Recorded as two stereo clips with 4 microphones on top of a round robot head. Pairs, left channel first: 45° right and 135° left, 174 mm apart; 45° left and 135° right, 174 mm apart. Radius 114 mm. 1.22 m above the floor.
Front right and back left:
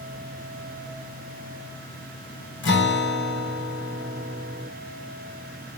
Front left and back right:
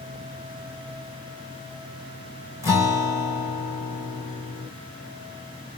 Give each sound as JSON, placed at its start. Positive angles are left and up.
{"t": 2.6, "sound": "a guitar", "azimuth_deg": -60, "distance_m": 1.8}